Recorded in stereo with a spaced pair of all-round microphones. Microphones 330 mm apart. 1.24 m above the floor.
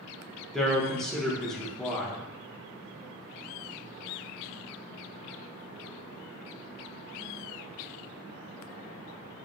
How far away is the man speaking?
About 0.8 m.